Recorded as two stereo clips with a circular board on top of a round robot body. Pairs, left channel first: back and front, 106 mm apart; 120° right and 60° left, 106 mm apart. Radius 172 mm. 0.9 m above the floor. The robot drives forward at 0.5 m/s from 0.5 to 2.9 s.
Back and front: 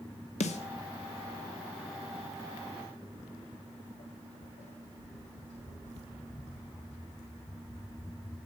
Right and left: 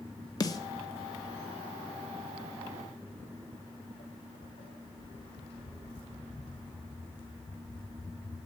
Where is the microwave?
I don't hear a microwave.